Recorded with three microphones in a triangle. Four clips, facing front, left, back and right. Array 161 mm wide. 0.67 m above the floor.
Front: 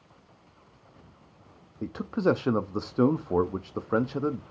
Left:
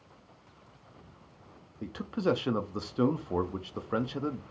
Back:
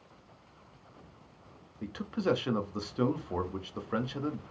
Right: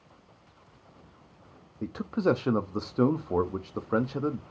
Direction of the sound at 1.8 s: 25° right.